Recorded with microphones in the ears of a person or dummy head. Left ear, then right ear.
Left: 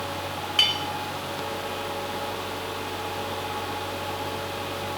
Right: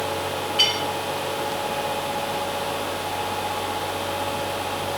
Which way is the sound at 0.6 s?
45° left (ahead or behind).